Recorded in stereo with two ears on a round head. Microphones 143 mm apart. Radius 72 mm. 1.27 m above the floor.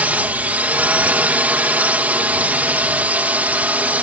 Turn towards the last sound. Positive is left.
turn(degrees=-10)  # may be behind; listen again after turning